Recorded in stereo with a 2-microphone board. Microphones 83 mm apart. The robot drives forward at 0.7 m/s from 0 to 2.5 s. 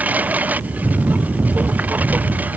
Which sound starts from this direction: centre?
A lawn mower, at 0.0 s.